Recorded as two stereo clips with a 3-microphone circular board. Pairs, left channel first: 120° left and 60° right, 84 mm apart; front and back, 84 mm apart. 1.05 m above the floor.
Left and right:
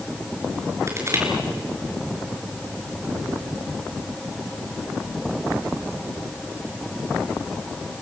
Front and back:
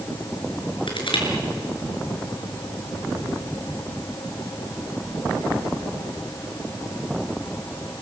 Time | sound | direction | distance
0.9 | crushing | 5° right | 5 m